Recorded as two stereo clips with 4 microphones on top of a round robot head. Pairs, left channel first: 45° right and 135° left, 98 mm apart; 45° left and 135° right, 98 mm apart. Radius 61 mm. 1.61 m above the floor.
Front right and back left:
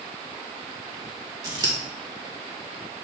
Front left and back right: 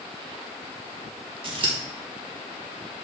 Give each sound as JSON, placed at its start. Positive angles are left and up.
{"t": 1.4, "sound": "scissors", "azimuth_deg": -175, "distance_m": 1.9}